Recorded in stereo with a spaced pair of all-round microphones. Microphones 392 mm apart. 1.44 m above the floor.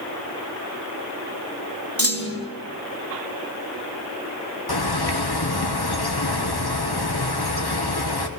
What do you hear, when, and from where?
2.0 s a clunk: 35° right (ahead or behind), 1.4 m
4.7 s a bird: 70° left (ahead or behind), 1.1 m